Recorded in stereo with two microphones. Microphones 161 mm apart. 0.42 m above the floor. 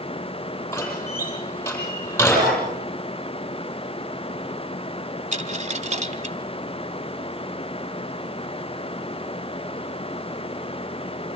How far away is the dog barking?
About 7 m.